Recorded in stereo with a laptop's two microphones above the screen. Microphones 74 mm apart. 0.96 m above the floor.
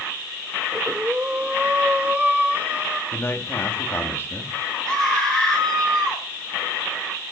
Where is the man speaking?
35° left (ahead or behind), 1.8 m.